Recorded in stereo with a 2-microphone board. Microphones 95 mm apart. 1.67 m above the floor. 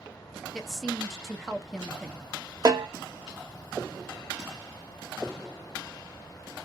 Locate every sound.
0.5 s a woman speaking: 5° left (ahead or behind), 0.6 m
2.6 s a snare drum: 45° right (ahead or behind), 0.9 m